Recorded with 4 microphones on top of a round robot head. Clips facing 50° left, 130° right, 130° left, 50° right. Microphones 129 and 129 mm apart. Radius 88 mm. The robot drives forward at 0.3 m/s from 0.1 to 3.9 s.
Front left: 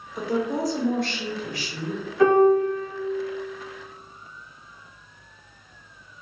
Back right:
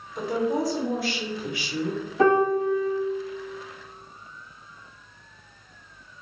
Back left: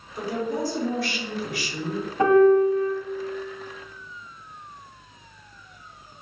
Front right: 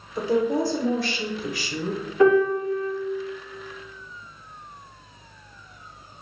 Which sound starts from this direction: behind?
A piano, at 2.2 s.